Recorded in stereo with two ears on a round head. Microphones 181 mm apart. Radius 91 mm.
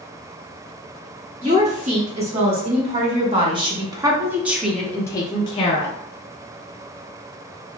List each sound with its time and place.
1.4 s a woman speaking: 35° right (ahead or behind), 1.9 m; by 6.0 s 35° left (ahead or behind), 0.8 m